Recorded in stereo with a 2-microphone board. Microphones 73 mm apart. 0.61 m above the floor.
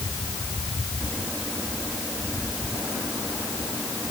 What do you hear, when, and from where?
Only background noise.